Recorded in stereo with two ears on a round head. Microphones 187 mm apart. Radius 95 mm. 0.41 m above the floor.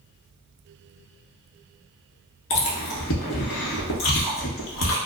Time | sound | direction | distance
2.5 | chewing | 65° left (ahead or behind) | 0.9 m